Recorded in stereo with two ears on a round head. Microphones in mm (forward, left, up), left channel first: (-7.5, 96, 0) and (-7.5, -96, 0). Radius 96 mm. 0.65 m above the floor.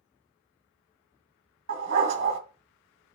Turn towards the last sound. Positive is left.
turn(degrees=-60)  # may be behind; listen again after turning